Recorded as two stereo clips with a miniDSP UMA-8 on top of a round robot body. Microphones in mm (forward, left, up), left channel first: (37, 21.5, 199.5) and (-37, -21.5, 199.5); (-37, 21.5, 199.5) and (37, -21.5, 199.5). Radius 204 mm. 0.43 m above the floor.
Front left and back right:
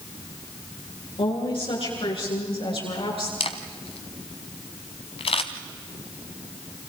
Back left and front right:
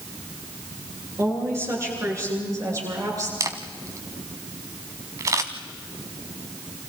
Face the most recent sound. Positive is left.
turn(degrees=25)